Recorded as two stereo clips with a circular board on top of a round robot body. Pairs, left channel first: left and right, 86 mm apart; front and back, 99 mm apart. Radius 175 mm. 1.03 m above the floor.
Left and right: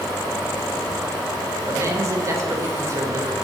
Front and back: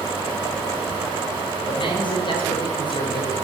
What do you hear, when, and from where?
1.7 s a man speaking: 35° right, 4 m